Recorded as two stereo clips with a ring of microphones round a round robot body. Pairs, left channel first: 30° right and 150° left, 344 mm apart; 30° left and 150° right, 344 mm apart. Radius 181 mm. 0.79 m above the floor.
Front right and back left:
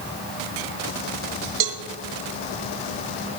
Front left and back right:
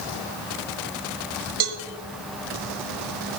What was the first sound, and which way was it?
A cowbell, straight behind.